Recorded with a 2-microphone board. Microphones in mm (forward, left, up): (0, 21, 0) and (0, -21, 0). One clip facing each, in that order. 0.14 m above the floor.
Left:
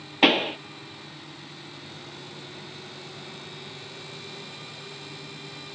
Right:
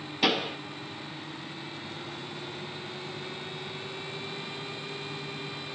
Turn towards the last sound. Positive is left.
turn(degrees=45)  # may be behind; listen again after turning